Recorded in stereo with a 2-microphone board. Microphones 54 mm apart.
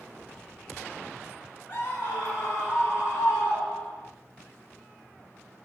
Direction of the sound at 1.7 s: 45° left (ahead or behind).